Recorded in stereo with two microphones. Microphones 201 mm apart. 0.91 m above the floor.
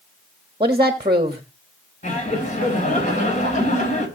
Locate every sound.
0.6 s a woman speaking: 25° right (ahead or behind), 1.3 m
2.0 s laughter: 35° left (ahead or behind), 4 m